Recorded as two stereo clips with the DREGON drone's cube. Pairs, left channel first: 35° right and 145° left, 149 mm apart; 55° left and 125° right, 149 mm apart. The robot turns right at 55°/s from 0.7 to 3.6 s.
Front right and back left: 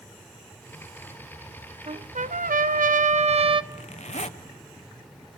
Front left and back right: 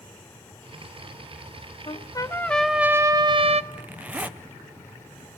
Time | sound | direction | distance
1.9 | a trumpet | 100° left | 0.6 m
3.7 | a zipper | 45° right | 0.7 m